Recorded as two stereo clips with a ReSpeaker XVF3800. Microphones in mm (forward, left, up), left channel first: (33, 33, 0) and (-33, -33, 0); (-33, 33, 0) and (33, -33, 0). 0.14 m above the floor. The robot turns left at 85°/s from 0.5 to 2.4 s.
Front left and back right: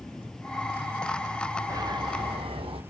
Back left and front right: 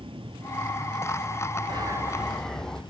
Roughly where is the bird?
Right.